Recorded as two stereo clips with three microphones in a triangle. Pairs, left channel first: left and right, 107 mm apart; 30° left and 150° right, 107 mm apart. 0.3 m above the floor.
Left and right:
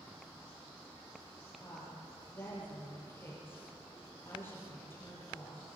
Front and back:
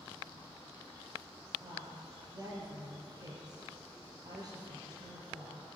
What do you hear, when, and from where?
1.6 s a woman speaking: 160° left, 9 m